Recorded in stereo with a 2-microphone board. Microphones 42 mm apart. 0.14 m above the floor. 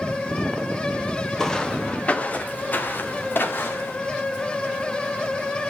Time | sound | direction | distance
1.4 | footsteps | 10° left (ahead or behind) | 1.5 m